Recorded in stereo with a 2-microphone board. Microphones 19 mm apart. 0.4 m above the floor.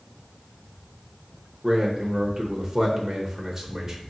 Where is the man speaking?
35° right (ahead or behind), 0.9 m.